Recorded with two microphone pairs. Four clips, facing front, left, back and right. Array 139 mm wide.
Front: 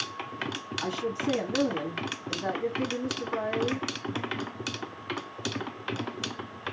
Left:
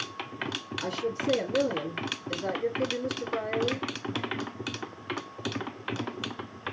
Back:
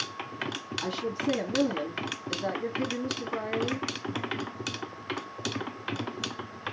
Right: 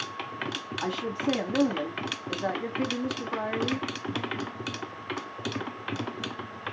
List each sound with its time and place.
0.8 s a woman speaking: 75° right, 1.5 m